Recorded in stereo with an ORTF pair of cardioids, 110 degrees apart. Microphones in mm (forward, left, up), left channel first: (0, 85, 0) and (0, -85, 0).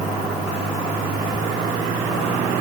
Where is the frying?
I don't hear frying.